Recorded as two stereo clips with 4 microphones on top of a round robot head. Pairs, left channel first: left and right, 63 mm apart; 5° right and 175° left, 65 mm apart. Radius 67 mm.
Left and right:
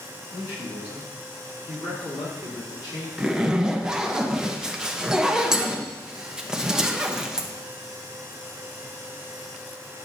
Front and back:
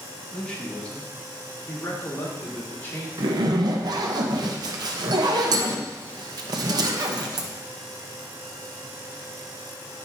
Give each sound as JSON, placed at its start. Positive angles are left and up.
{"t": 0.3, "sound": "a man speaking", "azimuth_deg": 70, "distance_m": 2.5}
{"t": 3.2, "sound": "a zipper", "azimuth_deg": -170, "distance_m": 0.8}